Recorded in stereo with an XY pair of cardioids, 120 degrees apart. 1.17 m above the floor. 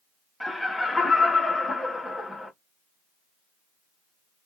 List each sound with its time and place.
0.4 s laughter: 10° left, 1.3 m